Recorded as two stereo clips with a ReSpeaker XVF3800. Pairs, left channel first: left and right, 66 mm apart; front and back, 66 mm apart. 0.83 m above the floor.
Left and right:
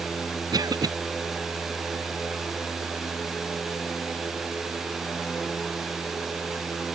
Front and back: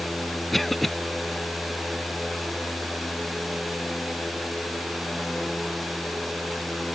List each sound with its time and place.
0.5 s a cough: 85° right